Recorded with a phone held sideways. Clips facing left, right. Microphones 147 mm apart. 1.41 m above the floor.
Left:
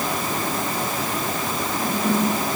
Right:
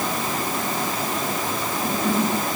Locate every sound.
Only background noise.